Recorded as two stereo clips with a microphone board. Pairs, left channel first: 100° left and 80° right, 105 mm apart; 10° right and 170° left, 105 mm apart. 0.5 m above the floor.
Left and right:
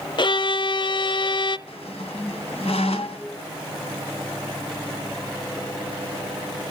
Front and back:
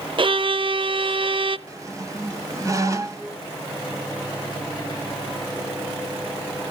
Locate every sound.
0.2 s a violin: 135° left, 0.6 m
1.7 s a squeak: 110° left, 2 m